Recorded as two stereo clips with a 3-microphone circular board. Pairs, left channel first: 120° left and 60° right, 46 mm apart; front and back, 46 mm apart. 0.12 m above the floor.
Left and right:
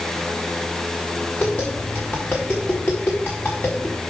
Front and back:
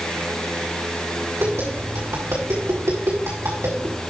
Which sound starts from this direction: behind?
Tapping, at 1.4 s.